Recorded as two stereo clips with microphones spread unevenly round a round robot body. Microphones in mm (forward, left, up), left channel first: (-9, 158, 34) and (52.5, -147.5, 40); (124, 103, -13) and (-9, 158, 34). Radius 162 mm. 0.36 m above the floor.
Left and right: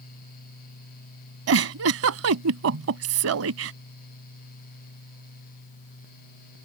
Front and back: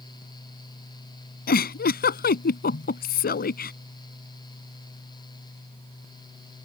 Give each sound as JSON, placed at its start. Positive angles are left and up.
{"t": 1.5, "sound": "a giggle", "azimuth_deg": -35}